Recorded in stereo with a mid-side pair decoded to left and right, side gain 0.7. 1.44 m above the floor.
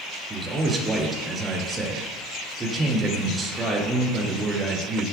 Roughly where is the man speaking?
Ahead.